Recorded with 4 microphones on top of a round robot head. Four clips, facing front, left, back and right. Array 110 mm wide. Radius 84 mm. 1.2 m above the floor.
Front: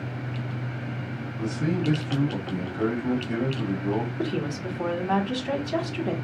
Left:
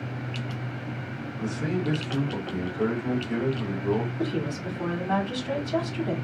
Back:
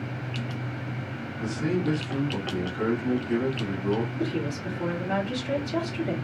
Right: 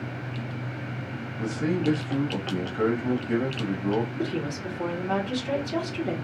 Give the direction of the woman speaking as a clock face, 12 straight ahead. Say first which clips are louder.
Left 1 dB, front 1 dB; 1 o'clock.